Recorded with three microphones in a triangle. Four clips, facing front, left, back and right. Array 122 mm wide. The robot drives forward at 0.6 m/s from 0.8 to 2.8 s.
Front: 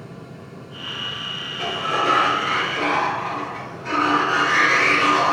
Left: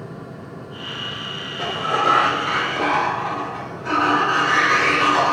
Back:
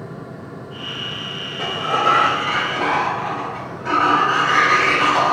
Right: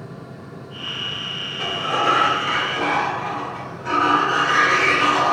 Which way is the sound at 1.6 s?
145° left.